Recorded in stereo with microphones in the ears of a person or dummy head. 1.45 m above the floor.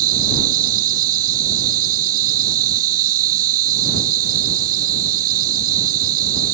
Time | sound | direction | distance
0.0 | an insect | 45° right (ahead or behind) | ?